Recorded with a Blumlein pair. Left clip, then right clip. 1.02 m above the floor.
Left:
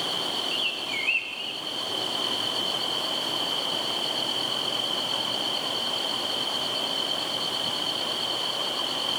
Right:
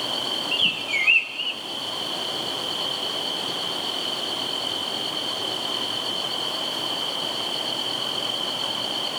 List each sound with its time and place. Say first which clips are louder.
0.5 s a bird: right 5 dB; 20° right, 1.1 m